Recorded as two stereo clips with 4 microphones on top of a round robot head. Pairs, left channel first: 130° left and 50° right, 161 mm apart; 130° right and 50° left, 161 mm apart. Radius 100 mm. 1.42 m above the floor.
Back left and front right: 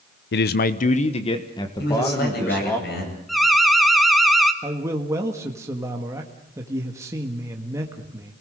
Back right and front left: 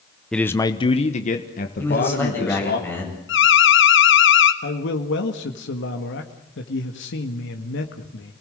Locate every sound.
0.3 s a man speaking: 145° left, 0.9 m; by 2.8 s 150° right, 2.5 m
1.8 s a man speaking: 155° left, 8.5 m
3.3 s an alarm: 140° right, 1.5 m
4.6 s a man speaking: 125° right, 1.8 m